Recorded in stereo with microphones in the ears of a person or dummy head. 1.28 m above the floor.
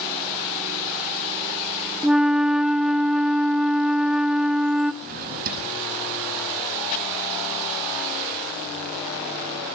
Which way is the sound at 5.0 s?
50° right (ahead or behind).